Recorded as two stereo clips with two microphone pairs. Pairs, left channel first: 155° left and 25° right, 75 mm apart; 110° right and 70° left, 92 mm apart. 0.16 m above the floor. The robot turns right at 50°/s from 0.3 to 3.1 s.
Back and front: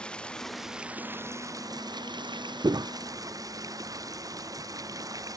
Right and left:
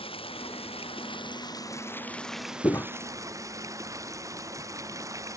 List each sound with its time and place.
0.0 s running water: 125° right; by 5.4 s 15° left
2.6 s footsteps: 55° right; by 2.9 s 45° right